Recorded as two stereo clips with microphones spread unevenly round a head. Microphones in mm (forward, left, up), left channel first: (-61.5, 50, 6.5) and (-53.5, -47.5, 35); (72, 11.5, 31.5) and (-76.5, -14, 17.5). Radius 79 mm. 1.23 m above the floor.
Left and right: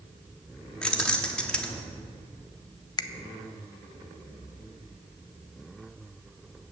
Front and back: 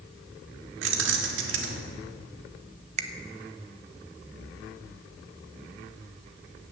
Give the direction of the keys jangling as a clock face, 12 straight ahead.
6 o'clock.